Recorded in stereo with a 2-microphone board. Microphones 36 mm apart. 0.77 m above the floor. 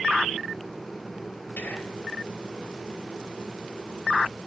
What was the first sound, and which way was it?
Whispering, 65° left (ahead or behind).